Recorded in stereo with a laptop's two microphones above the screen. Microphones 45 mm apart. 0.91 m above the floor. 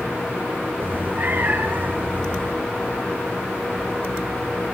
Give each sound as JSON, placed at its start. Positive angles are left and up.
{"t": 0.8, "sound": "a cat meowing", "side_deg": -45, "distance_m": 4.0}